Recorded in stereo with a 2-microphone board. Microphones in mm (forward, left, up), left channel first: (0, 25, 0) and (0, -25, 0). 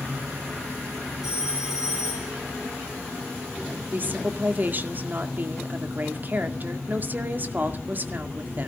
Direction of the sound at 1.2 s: 15° right (ahead or behind).